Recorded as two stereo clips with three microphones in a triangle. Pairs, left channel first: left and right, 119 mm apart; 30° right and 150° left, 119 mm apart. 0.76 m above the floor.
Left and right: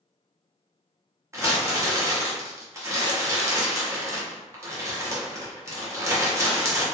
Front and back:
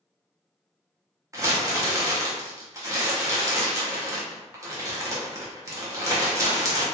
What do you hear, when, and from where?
1.3 s crumpling: 150° right, 0.8 m